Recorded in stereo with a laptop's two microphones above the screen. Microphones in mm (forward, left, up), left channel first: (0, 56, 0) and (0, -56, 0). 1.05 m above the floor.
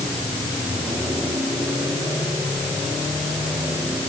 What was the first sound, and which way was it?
Only background noise.